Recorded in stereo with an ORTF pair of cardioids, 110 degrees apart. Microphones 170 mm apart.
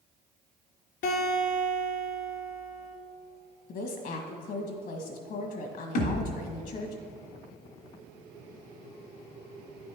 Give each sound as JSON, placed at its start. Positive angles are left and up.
{"t": 1.0, "sound": "a guitar", "azimuth_deg": 65, "distance_m": 2.0}
{"t": 3.7, "sound": "a woman speaking", "azimuth_deg": 65, "distance_m": 1.6}
{"t": 6.0, "sound": "a thud", "azimuth_deg": 65, "distance_m": 1.9}